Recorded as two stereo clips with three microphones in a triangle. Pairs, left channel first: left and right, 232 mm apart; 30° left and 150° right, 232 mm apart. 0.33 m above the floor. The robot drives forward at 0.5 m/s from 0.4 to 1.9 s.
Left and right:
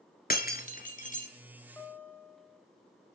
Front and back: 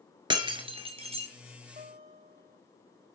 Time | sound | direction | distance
0.3 | breaking glass | 140° left | 1.9 m
1.8 | a guitar | 170° left | 2 m